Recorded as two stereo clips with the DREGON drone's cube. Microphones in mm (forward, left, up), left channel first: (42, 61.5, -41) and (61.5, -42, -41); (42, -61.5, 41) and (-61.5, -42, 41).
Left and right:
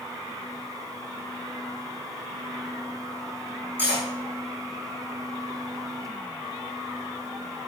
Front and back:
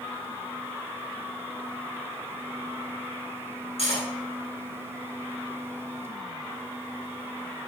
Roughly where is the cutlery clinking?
Ahead.